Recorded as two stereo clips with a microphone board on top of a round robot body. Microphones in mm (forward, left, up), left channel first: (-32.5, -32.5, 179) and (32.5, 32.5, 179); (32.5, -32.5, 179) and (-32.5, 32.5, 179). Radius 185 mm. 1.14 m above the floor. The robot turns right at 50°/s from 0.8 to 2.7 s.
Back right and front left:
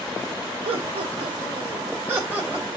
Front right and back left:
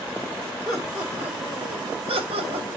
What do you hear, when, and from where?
0.7 s laughter: 45° left, 3 m; by 2.7 s 140° left, 3 m